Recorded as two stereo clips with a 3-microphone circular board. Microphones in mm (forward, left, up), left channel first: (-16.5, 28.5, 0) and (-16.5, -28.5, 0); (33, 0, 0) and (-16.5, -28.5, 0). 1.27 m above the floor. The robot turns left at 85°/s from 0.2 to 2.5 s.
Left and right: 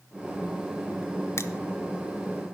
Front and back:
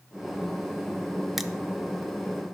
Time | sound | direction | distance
1.4 | crushing | 125° left | 0.6 m